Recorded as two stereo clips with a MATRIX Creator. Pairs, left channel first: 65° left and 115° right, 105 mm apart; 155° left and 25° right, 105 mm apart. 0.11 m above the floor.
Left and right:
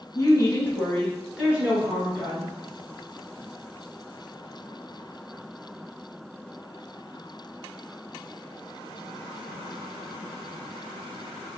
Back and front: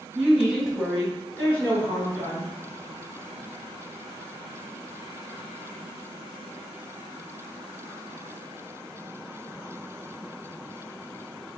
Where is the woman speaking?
50° left, 2.0 m; by 2.5 s 150° right, 2.5 m.